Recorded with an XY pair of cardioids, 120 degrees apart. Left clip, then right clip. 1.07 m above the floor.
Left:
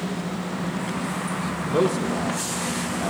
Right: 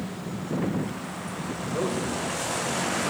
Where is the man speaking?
55° left, 2.5 m.